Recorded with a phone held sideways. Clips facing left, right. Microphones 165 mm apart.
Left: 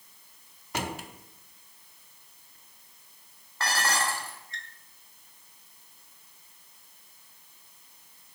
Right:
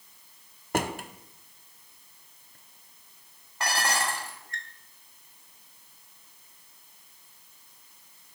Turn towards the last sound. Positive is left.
turn(degrees=-15)  # may be behind; listen again after turning